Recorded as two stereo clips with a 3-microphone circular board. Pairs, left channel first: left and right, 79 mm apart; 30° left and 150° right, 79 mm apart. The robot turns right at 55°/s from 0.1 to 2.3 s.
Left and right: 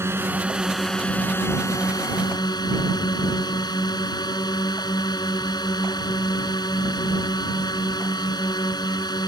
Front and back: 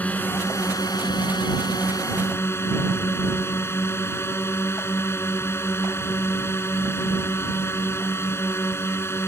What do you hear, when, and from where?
0.0 s a drone: 40° right; by 9.3 s 85° left